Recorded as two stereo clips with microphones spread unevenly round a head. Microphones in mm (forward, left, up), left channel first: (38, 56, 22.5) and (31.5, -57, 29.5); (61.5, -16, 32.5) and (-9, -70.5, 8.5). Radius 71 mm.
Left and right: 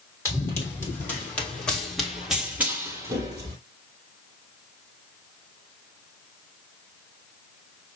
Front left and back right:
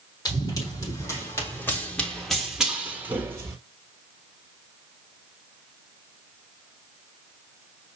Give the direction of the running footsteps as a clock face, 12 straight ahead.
11 o'clock.